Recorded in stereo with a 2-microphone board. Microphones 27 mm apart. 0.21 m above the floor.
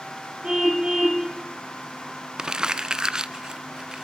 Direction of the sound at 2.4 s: 25° right (ahead or behind).